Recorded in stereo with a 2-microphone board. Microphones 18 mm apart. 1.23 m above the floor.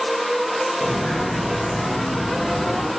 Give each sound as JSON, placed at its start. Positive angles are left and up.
{"t": 0.8, "sound": "footsteps", "side_deg": 70, "distance_m": 3.5}